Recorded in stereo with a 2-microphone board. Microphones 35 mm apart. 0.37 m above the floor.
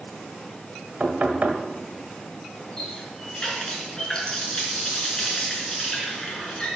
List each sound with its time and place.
1.0 s knocking: 50° right (ahead or behind), 1.6 m
2.8 s a running tap: 25° left (ahead or behind), 3 m